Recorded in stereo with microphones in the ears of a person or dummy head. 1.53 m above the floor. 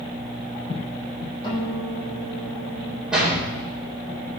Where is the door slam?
10° right (ahead or behind), 4 m.